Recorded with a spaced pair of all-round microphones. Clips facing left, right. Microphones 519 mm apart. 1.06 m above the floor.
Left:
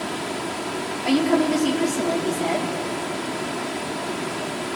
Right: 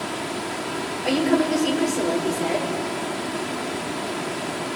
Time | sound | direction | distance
1.1 | a woman speaking | 25° left (ahead or behind) | 4.5 m